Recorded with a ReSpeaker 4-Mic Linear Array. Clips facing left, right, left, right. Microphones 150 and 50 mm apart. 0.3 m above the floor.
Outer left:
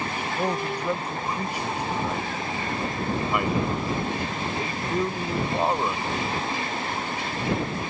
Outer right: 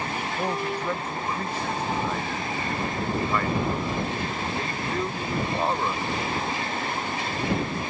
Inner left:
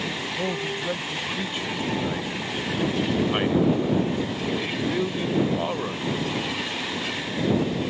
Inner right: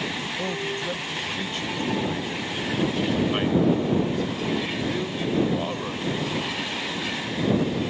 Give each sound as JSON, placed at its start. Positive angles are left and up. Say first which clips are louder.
{"t": 0.4, "sound": "a man speaking", "louder": "outer left 2 dB, inner left 2 dB", "side_deg": 10}